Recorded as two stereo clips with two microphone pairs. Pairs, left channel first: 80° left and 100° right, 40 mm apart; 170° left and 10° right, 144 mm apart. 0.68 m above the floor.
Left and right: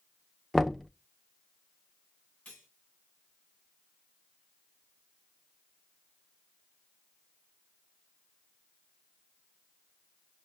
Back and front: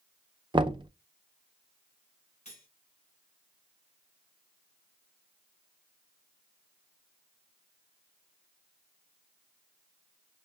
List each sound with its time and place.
0.5 s knocking: 5° right, 0.5 m
2.5 s cutlery clinking: 135° left, 3 m